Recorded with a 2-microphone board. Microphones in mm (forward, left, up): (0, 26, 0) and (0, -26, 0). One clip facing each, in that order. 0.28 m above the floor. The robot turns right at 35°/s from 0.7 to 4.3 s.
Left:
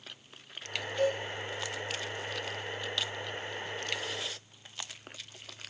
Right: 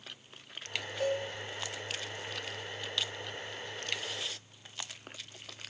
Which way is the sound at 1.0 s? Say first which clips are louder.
Left 3 dB; 60° left (ahead or behind).